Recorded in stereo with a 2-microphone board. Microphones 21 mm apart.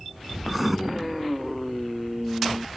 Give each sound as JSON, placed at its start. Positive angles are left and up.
{"t": 0.5, "sound": "writing", "side_deg": -5}